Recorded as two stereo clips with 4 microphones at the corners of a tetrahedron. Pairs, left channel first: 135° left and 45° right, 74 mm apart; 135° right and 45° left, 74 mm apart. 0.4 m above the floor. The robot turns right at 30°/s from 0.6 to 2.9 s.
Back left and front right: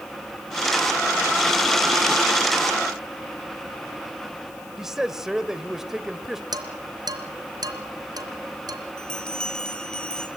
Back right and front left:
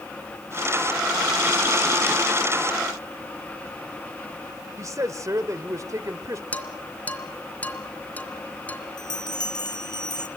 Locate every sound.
4.8 s a man speaking: 35° left, 1.3 m
6.5 s dishes clattering: 65° right, 2.5 m
9.0 s a bell: 145° right, 2.5 m